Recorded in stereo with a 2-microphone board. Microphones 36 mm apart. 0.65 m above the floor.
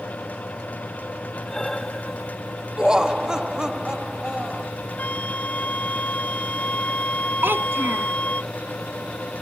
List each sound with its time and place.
1.5 s breathing: 15° left (ahead or behind)
2.8 s laughter: 20° right (ahead or behind)
5.0 s a flute: 45° left (ahead or behind)
7.4 s a child speaking: 85° right